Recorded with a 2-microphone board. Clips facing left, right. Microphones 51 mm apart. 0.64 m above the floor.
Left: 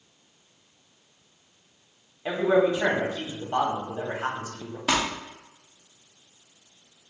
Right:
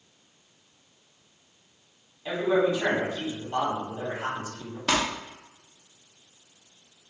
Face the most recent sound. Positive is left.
turn(degrees=5)  # may be behind; listen again after turning